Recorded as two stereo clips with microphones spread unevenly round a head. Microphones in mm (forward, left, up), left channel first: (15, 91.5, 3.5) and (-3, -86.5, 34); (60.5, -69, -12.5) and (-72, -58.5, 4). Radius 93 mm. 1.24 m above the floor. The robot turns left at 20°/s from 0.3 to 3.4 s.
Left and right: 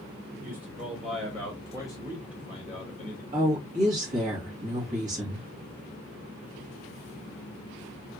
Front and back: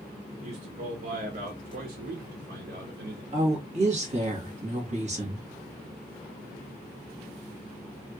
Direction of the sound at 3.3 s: 145° right.